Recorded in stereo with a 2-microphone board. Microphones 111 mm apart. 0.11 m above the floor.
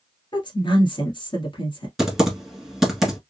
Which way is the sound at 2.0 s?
5° right (ahead or behind).